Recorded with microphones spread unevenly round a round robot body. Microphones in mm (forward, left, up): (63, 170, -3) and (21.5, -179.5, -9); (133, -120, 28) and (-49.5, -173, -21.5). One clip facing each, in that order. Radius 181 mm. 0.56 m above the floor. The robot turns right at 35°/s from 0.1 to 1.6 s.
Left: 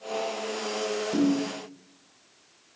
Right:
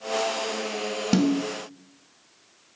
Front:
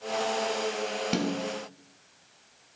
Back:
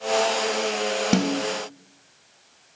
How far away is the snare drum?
About 1.2 m.